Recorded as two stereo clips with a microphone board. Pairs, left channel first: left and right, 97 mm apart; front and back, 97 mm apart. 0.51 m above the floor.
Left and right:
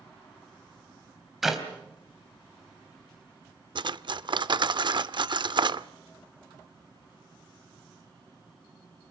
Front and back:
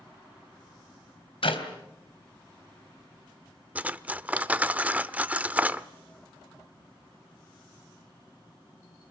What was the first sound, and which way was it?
A clap, 5° right.